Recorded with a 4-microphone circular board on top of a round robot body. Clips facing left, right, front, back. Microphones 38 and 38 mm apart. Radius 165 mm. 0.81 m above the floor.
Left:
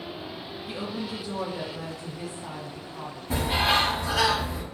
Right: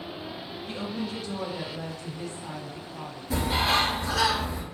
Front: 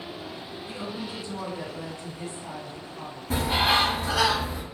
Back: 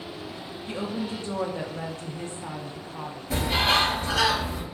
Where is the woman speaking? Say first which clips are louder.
Even, back 5 dB; 170° left, 0.7 m.